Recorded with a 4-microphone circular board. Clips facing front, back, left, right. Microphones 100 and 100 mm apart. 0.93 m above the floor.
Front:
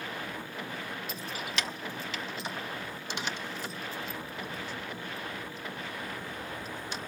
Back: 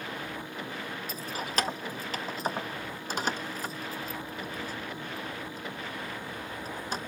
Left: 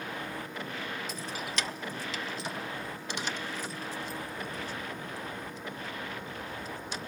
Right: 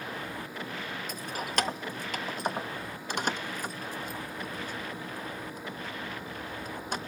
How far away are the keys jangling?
About 0.5 m.